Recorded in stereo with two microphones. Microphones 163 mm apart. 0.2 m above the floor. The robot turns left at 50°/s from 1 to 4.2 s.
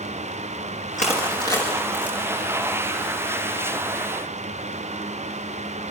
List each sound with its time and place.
1.0 s crushing: 45° left (ahead or behind), 8 m; by 2.2 s 15° right (ahead or behind), 8 m